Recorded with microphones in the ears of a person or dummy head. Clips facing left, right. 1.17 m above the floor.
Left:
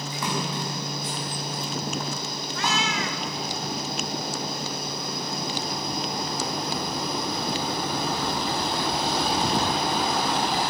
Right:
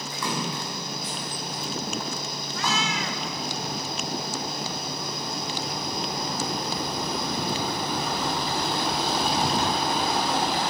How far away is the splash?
About 6 m.